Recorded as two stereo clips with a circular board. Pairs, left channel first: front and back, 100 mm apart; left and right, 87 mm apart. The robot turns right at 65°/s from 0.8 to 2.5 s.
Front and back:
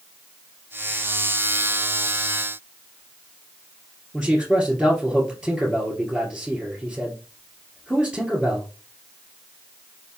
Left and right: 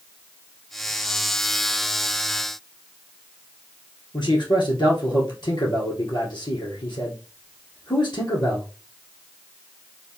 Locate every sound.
4.1 s a man speaking: 100° left, 2.5 m